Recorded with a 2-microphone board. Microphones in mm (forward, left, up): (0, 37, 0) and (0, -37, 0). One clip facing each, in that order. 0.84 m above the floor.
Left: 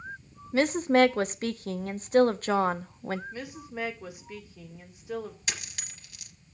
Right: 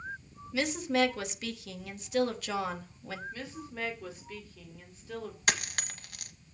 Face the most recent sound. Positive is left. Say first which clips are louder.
# right 7 dB
turn(degrees=-60)  # may be behind; listen again after turning